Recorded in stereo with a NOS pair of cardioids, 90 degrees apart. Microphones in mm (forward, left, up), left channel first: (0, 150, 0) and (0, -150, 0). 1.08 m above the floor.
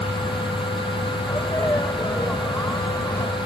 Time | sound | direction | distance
0.0 | a fan | 15° left | ?
1.2 | a sneeze | 10° left | ?